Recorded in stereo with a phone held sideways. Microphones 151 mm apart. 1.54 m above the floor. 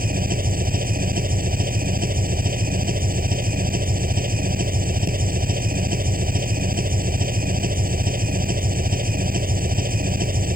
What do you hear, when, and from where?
0.0 s an engine running: 75° right (ahead or behind)